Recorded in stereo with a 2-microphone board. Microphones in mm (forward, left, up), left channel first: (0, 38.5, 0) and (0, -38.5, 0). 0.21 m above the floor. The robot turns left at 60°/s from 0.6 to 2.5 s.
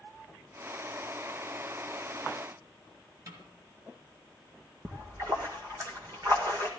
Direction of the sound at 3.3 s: 50° right (ahead or behind).